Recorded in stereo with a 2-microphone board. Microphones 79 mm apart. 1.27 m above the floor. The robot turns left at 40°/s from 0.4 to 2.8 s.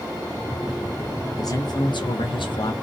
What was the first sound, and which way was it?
A man speaking, 130° left.